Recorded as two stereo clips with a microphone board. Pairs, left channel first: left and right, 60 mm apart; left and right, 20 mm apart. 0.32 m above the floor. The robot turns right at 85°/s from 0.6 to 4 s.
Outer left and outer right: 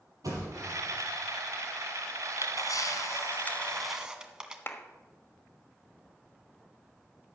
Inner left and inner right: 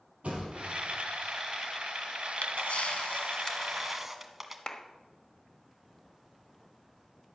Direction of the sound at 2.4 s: 60° left.